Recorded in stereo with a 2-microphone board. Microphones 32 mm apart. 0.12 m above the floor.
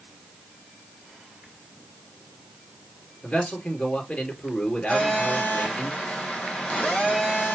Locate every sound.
3.2 s a man speaking: 30° left (ahead or behind), 2 m
4.9 s a phone buzzing: 35° left (ahead or behind), 4 m